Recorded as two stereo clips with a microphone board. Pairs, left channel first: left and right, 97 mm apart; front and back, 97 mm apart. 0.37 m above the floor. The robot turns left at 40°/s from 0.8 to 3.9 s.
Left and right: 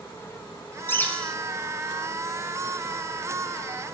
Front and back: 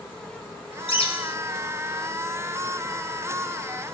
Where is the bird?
25° left, 1.2 m; by 1.4 s 5° left, 1.2 m.